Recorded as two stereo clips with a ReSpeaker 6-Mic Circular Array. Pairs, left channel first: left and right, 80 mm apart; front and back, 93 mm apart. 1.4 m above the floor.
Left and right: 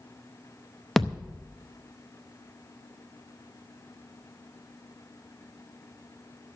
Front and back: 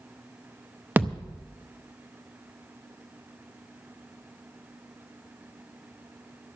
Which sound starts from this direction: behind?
A thud, at 1.0 s.